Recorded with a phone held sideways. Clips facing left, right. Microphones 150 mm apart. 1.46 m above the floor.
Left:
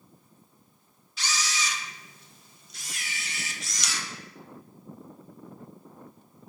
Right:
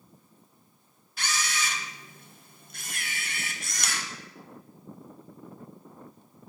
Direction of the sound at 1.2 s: 55° right (ahead or behind).